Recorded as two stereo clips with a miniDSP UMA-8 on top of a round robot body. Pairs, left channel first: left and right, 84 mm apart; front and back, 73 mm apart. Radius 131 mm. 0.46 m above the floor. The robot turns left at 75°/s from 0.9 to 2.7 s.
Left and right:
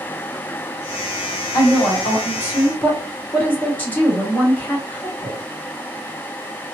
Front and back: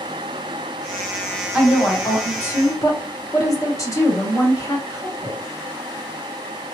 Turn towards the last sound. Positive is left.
turn(degrees=15)